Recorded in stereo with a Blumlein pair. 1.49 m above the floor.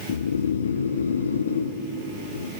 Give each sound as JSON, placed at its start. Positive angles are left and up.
{"t": 0.1, "sound": "snoring", "azimuth_deg": 70, "distance_m": 1.0}